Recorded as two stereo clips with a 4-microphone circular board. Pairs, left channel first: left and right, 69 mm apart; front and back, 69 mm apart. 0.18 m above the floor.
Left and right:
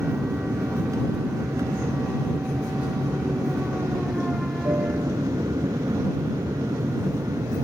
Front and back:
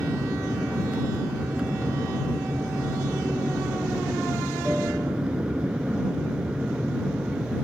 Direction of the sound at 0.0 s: 110° right.